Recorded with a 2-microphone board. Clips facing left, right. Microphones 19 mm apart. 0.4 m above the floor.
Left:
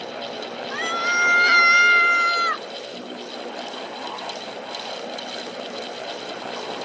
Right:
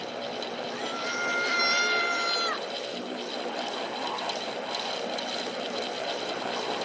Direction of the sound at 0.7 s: 65° left (ahead or behind).